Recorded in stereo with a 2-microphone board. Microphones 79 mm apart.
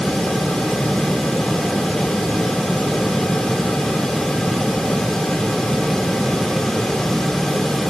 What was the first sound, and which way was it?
Only background noise.